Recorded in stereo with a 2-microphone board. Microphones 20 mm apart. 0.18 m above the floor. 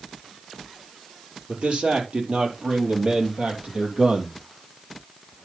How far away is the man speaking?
About 4 m.